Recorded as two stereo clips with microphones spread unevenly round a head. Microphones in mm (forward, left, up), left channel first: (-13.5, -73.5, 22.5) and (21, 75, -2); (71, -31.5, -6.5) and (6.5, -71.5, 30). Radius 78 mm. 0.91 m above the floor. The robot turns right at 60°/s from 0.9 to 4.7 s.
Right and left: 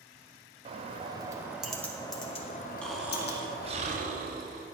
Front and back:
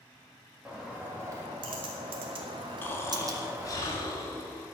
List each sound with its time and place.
0.7 s a bird: 115° left, 1.6 m; by 3.8 s 70° right, 1.6 m
2.8 s snoring: 15° right, 1.9 m; by 4.6 s 95° left, 1.9 m